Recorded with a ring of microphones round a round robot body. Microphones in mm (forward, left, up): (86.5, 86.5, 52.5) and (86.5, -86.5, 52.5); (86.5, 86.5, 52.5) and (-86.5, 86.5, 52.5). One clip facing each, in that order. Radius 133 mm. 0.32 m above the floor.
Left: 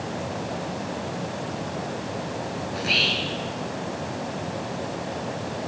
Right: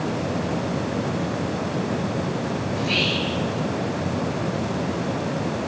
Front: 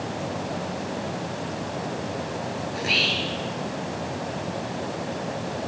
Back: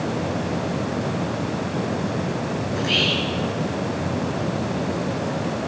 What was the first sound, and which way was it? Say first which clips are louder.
Whispering: right 4 dB, back 5 dB; 65° left.